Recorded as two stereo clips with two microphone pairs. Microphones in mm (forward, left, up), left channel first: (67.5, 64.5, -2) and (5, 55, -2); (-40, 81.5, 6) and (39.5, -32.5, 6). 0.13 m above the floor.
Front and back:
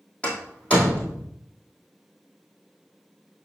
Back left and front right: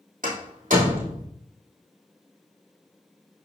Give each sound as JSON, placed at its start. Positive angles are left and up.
{"t": 0.2, "sound": "a door slam", "azimuth_deg": -60, "distance_m": 3.5}